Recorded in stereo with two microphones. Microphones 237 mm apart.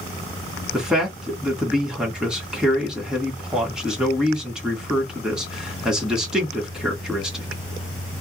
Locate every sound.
0.7 s a man speaking: 5° right (ahead or behind), 1.7 m